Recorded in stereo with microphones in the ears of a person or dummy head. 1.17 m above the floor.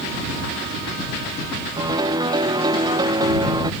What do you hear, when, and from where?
1.8 s a piano: 25° right (ahead or behind)